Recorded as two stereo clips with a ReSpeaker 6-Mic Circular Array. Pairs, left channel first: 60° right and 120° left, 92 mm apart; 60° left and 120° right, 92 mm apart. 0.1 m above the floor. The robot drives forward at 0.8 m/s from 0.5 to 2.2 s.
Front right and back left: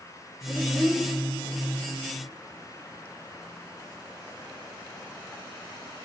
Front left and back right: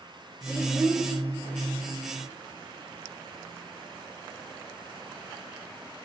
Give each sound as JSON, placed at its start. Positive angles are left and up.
{"t": 0.5, "sound": "a child speaking", "azimuth_deg": 175, "distance_m": 1.2}